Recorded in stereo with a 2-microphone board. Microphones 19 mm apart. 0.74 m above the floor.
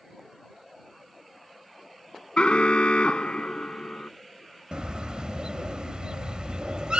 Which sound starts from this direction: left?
An alarm, at 2.4 s.